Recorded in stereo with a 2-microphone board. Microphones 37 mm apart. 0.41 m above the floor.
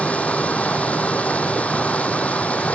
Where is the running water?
40° left (ahead or behind).